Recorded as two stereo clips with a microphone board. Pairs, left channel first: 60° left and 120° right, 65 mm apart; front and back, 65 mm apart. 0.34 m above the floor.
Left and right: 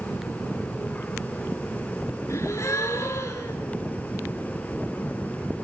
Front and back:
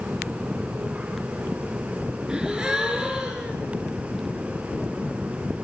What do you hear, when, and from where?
2.3 s a gasp: 100° left, 3 m